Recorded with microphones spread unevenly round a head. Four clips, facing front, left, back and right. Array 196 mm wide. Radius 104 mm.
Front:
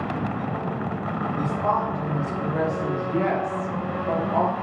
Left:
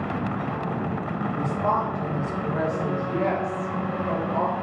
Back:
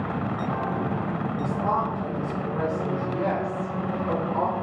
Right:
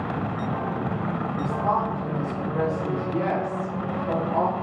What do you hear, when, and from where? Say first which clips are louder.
1.4 s a woman speaking: even, front 2 dB; 50° left, 1.3 m; by 4.5 s 20° right, 1.6 m